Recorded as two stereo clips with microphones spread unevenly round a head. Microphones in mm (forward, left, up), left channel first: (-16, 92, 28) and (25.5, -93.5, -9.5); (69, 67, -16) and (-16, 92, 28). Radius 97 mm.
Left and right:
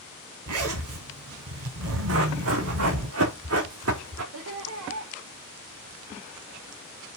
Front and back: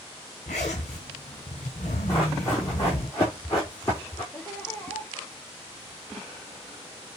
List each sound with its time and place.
0.5 s a zipper: 70° right, 3 m
2.1 s running footsteps: 100° right, 4 m
4.3 s laughter: 100° right, 1.2 m